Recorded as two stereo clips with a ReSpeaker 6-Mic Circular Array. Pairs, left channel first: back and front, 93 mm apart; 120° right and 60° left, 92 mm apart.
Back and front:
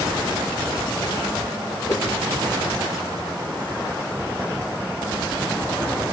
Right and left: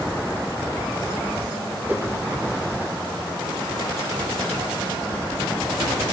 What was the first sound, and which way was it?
A whoosh, 125° left.